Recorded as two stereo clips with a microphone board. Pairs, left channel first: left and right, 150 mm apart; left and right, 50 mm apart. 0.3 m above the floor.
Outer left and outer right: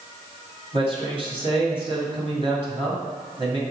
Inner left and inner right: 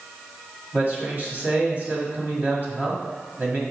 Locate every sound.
0.7 s a man speaking: 40° right (ahead or behind), 1.7 m